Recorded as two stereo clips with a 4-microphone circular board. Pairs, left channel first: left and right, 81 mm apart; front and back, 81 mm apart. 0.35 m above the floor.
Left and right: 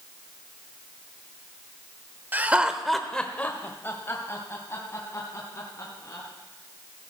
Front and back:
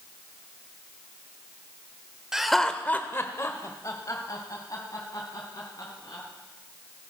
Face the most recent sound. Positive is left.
turn(degrees=40)